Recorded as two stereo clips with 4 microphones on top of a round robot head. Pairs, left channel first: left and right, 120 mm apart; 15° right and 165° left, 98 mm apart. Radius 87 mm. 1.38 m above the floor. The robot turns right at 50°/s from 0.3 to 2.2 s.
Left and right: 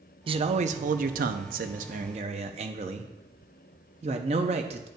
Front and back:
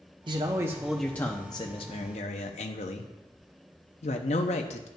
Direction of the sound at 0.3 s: 135° right.